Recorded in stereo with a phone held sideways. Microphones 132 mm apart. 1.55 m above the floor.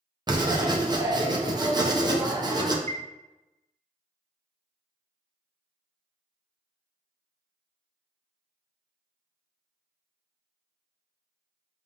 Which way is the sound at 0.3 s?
30° right (ahead or behind).